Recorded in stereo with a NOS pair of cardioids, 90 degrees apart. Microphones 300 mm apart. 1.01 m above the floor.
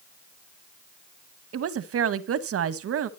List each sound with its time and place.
1.5 s a woman speaking: 50° right, 0.8 m